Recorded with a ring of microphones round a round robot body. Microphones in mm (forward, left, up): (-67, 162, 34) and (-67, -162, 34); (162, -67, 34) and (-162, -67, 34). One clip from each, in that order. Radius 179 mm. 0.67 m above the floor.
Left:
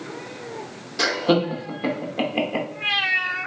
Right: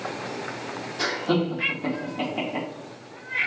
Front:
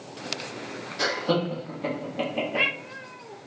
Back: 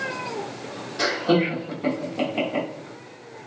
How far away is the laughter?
About 1.0 m.